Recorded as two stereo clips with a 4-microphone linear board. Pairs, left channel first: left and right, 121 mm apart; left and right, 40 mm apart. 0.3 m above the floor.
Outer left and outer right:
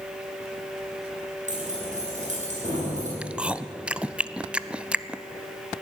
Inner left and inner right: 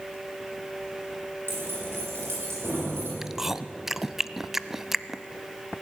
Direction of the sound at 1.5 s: 85° right.